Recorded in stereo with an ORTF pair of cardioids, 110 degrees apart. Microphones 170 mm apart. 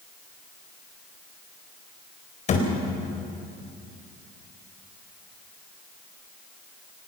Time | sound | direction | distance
2.5 | a thud | 45° left | 4 m